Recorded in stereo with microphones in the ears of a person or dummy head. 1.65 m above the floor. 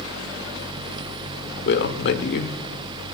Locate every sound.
1.6 s a man speaking: 55° left (ahead or behind), 1.2 m